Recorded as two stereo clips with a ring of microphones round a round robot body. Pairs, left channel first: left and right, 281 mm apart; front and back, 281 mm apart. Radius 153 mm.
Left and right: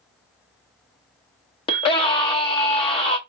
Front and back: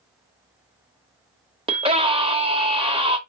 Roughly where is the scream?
Behind left.